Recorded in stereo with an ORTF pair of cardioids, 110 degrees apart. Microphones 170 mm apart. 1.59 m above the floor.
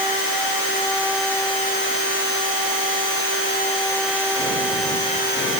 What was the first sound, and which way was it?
Only background noise.